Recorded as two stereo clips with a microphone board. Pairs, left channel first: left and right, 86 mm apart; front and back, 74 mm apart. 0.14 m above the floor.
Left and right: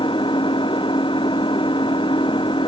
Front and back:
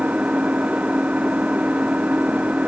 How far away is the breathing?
I don't hear breathing.